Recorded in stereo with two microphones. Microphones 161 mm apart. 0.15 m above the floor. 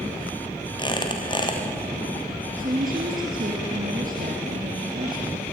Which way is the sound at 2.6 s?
55° right (ahead or behind).